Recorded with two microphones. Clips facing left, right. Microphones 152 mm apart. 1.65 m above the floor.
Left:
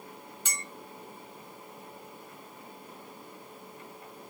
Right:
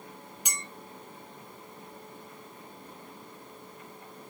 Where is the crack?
I don't hear a crack.